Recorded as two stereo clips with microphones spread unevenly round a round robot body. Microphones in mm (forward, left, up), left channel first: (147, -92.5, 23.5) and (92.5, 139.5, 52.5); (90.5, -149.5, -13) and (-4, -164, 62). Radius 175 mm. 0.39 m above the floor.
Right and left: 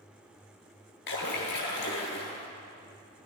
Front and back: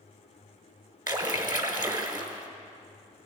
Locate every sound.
1.1 s a splash: 140° right, 0.9 m